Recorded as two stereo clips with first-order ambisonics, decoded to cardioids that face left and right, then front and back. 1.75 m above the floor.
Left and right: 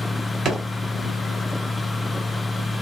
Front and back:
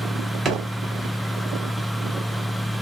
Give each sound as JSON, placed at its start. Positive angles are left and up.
{"t": 0.5, "sound": "a drawer", "azimuth_deg": -130, "distance_m": 0.8}